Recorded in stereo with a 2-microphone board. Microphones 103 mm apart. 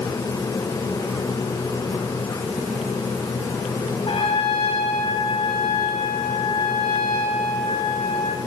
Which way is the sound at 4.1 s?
60° left (ahead or behind).